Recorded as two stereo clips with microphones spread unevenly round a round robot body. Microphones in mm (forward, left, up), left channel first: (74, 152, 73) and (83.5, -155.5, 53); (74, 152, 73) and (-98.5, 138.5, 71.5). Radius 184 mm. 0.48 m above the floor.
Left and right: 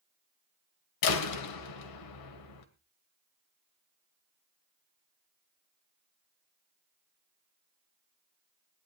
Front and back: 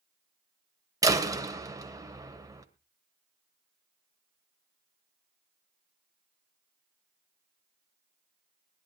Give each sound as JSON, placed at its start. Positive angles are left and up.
{"t": 1.0, "sound": "a door slam", "azimuth_deg": 115, "distance_m": 1.7}